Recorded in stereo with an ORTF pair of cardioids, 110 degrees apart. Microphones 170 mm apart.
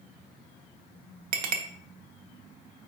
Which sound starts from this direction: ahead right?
A clink, at 1.3 s.